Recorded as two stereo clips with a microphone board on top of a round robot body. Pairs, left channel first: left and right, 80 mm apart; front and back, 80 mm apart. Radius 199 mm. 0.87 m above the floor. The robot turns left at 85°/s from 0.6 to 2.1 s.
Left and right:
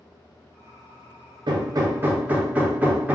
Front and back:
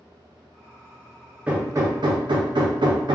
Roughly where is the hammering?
Right.